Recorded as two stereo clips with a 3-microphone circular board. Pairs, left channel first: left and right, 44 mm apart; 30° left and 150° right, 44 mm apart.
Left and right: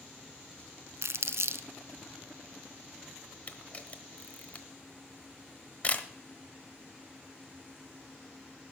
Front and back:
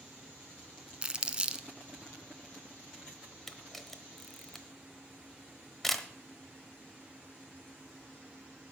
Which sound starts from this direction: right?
Crumpling, at 1.0 s.